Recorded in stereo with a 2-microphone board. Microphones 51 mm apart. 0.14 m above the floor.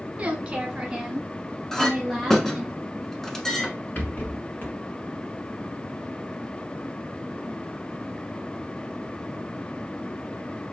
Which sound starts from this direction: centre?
A clink, at 1.7 s.